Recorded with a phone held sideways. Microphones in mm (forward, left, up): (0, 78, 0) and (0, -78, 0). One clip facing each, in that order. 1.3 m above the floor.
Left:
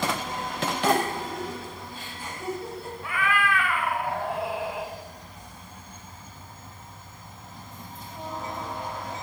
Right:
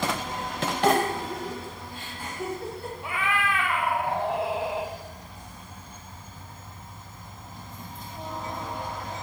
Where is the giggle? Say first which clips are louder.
Right 2 dB; 65° right (ahead or behind), 3 m.